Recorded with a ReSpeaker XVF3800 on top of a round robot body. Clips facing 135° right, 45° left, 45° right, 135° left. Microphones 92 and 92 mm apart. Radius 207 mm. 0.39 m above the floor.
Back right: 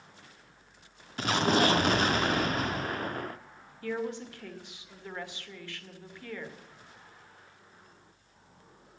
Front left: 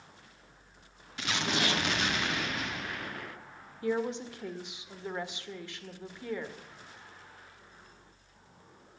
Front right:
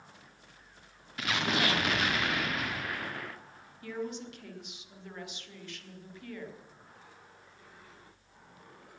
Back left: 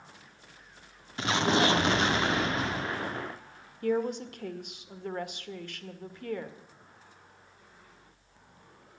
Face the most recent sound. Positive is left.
turn(degrees=115)